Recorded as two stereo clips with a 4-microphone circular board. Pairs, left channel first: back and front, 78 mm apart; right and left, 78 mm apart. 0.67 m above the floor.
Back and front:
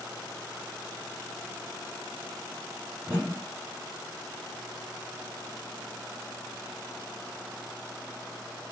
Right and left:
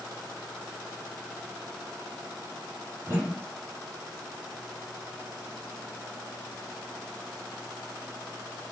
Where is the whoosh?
50° left, 1.5 m.